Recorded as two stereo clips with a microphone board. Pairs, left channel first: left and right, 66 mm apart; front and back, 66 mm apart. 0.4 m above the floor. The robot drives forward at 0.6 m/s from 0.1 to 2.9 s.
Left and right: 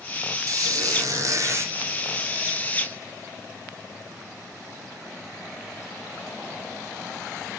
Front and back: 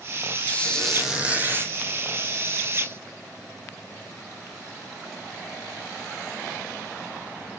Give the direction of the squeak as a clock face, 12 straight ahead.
2 o'clock.